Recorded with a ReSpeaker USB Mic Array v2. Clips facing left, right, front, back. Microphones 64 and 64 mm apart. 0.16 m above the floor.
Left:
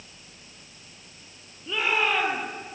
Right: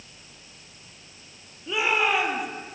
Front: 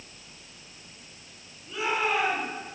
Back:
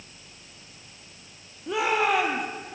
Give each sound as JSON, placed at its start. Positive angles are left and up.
{"t": 1.7, "sound": "a shout", "azimuth_deg": -170, "distance_m": 6.0}